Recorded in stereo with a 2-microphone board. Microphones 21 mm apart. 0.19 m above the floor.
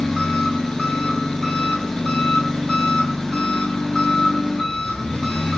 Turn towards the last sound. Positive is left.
turn(degrees=20)  # may be behind; listen again after turning